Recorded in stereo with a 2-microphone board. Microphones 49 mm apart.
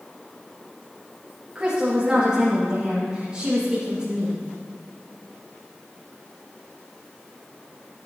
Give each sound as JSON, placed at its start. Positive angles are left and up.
{"t": 1.6, "sound": "a woman speaking", "side_deg": -15, "distance_m": 2.5}